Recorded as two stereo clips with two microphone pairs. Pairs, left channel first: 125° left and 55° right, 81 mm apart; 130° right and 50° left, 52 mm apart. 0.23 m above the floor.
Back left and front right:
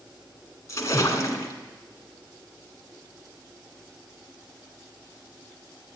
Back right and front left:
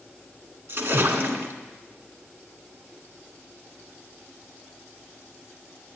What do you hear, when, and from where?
0.7 s a splash: 80° left, 1.9 m